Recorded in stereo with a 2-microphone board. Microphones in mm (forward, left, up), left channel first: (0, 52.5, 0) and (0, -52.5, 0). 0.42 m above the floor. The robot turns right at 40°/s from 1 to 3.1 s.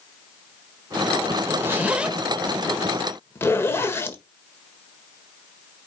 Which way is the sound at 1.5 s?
30° right (ahead or behind).